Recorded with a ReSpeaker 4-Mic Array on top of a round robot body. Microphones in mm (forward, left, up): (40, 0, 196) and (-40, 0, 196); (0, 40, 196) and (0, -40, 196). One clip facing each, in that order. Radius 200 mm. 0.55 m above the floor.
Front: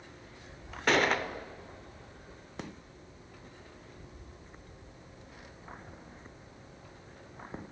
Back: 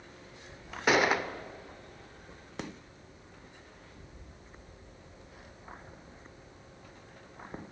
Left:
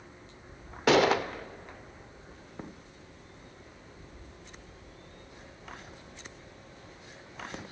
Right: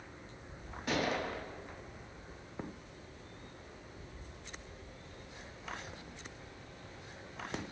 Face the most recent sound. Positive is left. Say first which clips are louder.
# back 1 dB, left 11 dB
turn(degrees=95)